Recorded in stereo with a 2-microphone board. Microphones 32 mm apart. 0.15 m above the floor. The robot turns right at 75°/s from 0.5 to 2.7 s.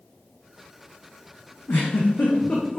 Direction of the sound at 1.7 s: 85° left.